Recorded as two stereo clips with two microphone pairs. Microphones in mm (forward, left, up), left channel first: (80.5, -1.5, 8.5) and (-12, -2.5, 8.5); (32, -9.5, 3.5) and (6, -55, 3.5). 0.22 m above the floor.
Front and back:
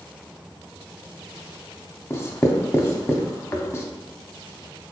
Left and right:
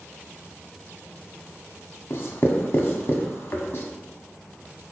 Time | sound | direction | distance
2.1 | writing | 45° left | 0.5 m